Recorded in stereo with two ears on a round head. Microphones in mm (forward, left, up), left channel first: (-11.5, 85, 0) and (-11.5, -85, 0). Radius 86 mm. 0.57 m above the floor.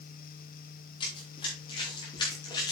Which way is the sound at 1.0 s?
30° left (ahead or behind).